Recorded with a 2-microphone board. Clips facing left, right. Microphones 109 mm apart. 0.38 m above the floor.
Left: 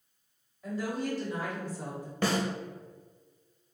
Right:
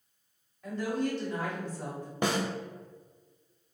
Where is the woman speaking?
5° left (ahead or behind), 1.9 m; by 2.1 s 15° left (ahead or behind), 1.4 m.